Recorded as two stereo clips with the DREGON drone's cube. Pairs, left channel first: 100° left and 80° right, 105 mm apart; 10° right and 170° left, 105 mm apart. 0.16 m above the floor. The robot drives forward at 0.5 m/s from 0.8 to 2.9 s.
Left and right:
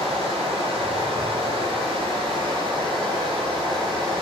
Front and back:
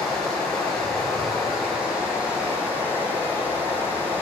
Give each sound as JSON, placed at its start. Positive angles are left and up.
{"t": 0.0, "sound": "running water", "azimuth_deg": -95, "distance_m": 2.5}